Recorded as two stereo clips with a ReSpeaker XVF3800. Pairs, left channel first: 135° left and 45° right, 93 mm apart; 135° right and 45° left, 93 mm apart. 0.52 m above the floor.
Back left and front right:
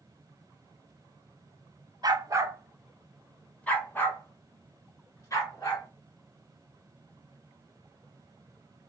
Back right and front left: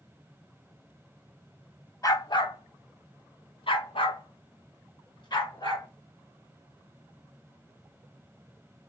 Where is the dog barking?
85° right, 0.7 m; by 5.9 s 175° right, 2 m.